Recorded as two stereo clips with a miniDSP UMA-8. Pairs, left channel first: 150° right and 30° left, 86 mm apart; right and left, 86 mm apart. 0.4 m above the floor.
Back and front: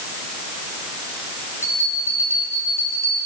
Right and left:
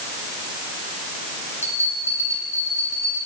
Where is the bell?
150° left, 9 m.